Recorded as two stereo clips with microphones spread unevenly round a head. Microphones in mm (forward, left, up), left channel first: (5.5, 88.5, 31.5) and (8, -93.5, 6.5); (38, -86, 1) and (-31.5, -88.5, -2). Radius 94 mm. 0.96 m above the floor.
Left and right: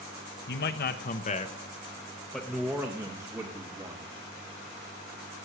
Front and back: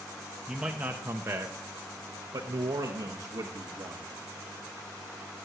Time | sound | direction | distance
0.5 | a man speaking | 100° left | 1.3 m